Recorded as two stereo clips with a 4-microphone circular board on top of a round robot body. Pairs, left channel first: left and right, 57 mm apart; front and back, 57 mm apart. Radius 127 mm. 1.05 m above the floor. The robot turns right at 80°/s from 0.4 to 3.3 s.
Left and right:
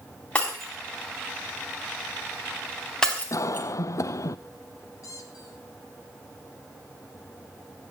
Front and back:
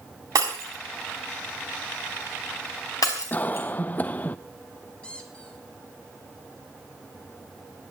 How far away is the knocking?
No knocking in this recording.